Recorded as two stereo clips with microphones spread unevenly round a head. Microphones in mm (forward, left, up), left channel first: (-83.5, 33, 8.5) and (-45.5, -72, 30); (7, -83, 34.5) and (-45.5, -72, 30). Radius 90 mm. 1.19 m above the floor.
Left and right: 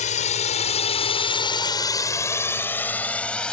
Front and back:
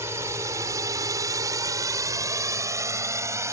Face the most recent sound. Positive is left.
turn(degrees=-170)